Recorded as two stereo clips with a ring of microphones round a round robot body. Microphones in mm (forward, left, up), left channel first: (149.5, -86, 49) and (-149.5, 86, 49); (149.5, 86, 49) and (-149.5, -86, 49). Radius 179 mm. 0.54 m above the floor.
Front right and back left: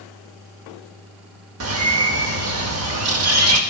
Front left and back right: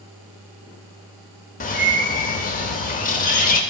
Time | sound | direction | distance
1.6 | a bird | 100° left | 0.7 m